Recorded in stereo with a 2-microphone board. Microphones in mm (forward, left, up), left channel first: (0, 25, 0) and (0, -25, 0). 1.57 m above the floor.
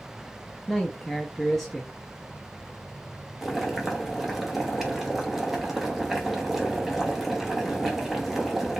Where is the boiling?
5° right (ahead or behind), 0.9 m.